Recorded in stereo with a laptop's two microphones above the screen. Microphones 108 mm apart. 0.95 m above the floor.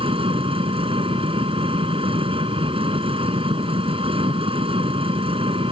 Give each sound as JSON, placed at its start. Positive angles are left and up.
{"t": 0.0, "sound": "an engine running", "side_deg": -60}